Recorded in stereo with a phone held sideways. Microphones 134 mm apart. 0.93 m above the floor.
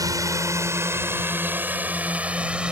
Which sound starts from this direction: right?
A drone, at 0.0 s.